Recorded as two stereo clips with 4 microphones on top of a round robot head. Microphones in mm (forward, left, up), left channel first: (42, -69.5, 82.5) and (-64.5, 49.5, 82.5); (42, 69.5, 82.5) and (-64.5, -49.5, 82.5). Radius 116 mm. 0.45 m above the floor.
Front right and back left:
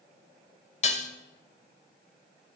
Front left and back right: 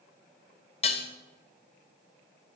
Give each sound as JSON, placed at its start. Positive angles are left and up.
{"t": 0.8, "sound": "dishes clattering", "azimuth_deg": 0, "distance_m": 1.7}